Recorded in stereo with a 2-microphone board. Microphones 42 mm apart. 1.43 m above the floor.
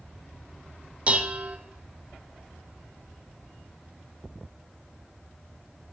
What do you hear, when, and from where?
1.1 s dishes clattering: 30° right (ahead or behind), 0.7 m